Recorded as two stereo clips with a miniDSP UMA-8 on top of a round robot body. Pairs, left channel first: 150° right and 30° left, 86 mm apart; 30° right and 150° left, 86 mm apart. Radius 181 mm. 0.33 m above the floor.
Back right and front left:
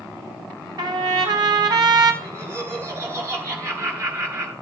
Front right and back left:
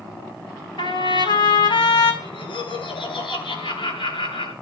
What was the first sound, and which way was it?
A trumpet, 10° right.